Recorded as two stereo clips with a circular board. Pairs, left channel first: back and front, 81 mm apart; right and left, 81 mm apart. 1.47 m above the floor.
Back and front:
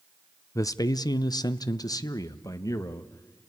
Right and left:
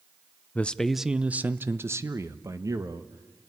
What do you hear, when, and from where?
0.6 s a man speaking: 155° right, 0.5 m; by 3.5 s 130° left, 1.7 m